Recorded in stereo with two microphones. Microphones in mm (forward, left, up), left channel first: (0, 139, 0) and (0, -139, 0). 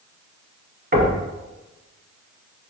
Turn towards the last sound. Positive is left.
turn(degrees=-35)  # may be behind; listen again after turning